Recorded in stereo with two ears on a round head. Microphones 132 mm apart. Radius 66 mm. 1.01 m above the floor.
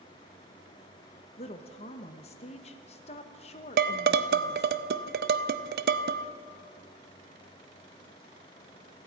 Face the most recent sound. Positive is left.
turn(degrees=-75)  # may be behind; listen again after turning